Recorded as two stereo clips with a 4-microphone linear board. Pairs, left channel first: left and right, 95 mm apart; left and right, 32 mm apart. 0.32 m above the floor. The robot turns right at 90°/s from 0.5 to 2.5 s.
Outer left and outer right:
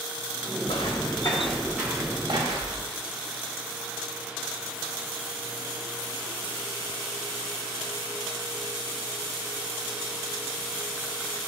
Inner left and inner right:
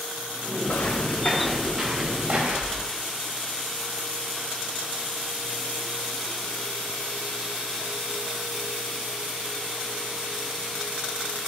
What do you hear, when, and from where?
0.7 s footsteps: 75° left (ahead or behind), 2 m; by 2.9 s 70° right (ahead or behind), 3.5 m